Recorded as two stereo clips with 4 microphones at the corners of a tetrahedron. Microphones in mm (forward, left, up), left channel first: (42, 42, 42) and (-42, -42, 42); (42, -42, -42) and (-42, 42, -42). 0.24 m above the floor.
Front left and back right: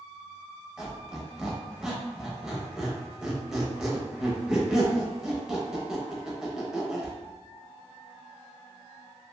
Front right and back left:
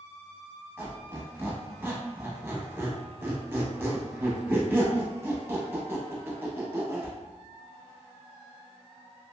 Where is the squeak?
150° left, 0.7 m.